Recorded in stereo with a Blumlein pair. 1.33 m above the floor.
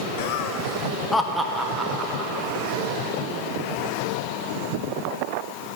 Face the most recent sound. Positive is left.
turn(degrees=-25)